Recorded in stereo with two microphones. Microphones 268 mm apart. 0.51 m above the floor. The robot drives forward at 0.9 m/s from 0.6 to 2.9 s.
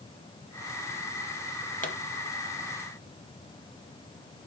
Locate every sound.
1.8 s a pop: 30° left (ahead or behind), 0.8 m; by 2.0 s 25° left (ahead or behind), 0.9 m